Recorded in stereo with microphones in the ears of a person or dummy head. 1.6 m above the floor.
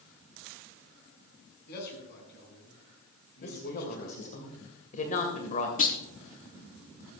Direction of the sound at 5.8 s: 40° left (ahead or behind).